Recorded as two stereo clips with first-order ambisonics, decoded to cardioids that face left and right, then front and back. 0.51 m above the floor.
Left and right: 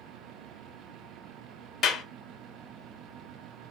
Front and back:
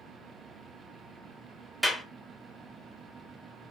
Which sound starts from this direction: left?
A clap, at 1.8 s.